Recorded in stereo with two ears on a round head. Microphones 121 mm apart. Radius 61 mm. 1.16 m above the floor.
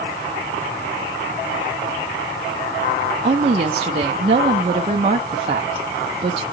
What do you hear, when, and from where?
3.2 s a woman speaking: 45° right (ahead or behind), 0.9 m